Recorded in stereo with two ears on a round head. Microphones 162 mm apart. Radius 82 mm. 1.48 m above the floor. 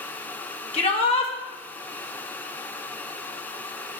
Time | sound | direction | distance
0.7 | a shout | 30° left (ahead or behind) | 2.0 m